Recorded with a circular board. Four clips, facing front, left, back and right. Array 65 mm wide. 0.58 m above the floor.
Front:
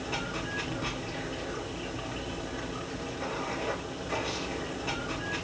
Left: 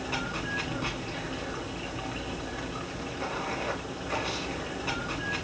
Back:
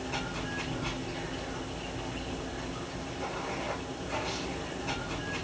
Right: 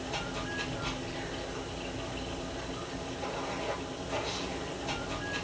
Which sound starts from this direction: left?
Running water, at 0.0 s.